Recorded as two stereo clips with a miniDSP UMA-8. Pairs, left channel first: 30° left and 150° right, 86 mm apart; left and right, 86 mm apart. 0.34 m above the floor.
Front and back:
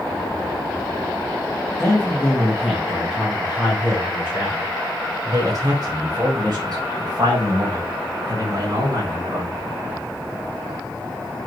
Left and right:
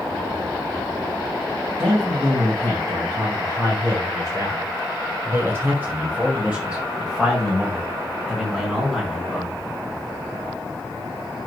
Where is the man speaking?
55° right, 3 m; by 9.5 s 175° left, 4 m.